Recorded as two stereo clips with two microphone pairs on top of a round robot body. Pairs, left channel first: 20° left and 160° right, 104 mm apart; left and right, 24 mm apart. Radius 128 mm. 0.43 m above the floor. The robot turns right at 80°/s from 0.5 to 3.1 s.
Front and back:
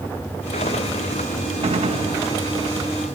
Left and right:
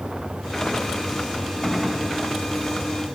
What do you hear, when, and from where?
1.6 s a gunshot: straight behind, 3 m; by 2.1 s 140° right, 3 m